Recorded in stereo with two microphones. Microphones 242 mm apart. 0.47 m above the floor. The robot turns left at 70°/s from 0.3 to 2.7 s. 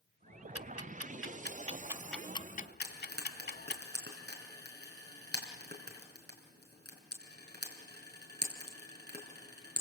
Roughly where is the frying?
Right.